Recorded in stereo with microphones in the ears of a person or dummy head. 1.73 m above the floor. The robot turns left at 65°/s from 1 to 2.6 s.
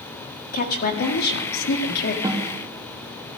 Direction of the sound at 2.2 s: 20° right (ahead or behind).